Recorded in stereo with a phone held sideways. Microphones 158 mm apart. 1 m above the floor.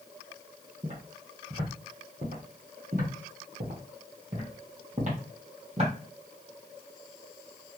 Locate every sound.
0.8 s footsteps: 50° right (ahead or behind), 2.5 m; by 5.9 s 40° right (ahead or behind), 2.5 m